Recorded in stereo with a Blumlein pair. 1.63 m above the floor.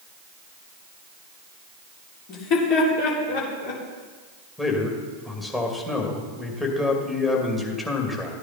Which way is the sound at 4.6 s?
10° left.